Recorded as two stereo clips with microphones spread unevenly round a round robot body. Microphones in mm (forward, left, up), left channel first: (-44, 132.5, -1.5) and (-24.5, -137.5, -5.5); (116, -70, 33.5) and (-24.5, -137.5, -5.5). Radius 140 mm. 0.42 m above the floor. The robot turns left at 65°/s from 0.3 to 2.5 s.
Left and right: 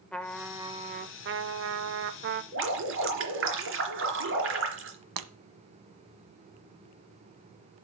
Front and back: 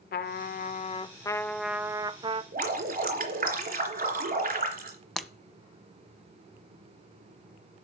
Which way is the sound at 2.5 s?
130° right.